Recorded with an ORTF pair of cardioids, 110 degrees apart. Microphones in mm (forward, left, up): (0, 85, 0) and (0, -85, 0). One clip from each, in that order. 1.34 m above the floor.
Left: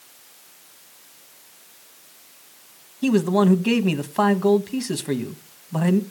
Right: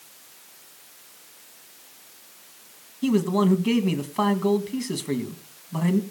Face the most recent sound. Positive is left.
turn(degrees=25)